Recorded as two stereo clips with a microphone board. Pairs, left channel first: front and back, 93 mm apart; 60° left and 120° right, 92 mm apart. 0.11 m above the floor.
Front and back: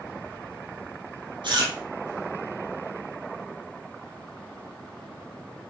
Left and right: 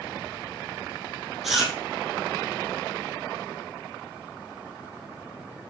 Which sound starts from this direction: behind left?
Chewing, at 1.4 s.